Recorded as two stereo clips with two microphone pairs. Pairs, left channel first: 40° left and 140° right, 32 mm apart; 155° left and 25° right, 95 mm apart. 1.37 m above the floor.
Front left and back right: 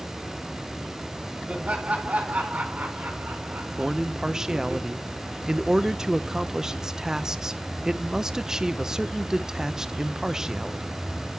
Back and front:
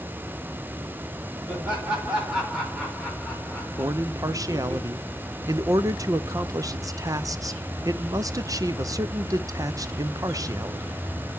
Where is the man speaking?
75° right, 0.6 m.